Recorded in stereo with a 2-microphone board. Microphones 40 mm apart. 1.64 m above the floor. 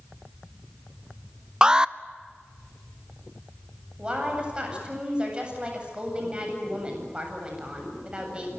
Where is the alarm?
20° right (ahead or behind), 0.7 m.